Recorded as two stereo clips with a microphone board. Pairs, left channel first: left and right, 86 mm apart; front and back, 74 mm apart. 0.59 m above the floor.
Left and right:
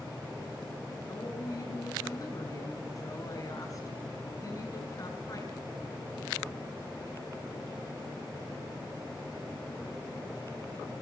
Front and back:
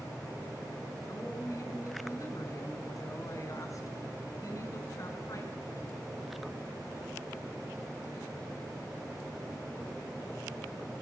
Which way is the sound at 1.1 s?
45° left.